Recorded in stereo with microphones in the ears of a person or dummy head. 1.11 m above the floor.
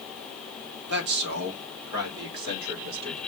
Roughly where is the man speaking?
Right.